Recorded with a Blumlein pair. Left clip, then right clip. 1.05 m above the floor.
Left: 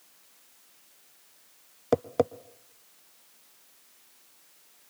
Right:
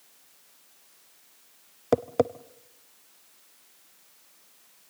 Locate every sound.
1.9 s tapping: 5° right, 0.5 m